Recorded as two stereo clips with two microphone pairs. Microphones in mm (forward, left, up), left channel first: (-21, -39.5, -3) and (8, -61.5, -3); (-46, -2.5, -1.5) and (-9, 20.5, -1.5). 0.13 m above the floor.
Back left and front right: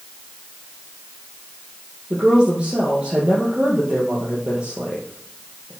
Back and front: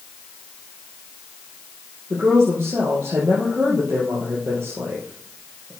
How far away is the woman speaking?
About 3 m.